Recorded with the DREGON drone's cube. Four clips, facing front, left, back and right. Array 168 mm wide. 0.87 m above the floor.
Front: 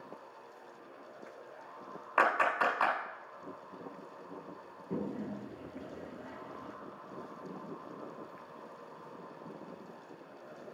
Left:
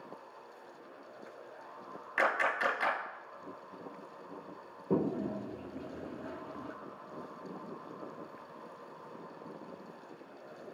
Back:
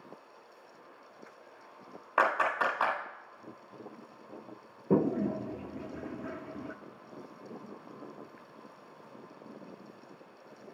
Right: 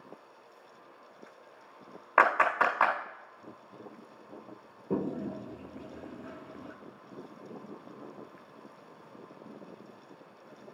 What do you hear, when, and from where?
2.2 s a clap: 100° right, 3.5 m
4.9 s a toilet flushing: 170° left, 0.6 m